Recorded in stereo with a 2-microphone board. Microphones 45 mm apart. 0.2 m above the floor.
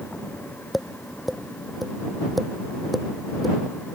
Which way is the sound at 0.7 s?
Centre (ahead or behind).